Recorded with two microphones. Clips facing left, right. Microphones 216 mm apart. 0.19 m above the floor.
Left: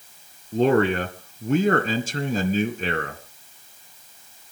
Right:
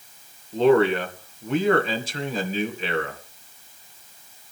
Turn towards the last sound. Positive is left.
turn(degrees=45)  # may be behind; listen again after turning